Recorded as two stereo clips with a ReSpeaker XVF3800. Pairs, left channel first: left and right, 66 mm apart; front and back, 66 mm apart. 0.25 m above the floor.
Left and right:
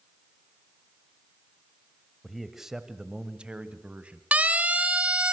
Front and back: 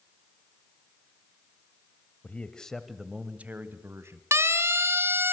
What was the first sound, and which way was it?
A man speaking, straight ahead.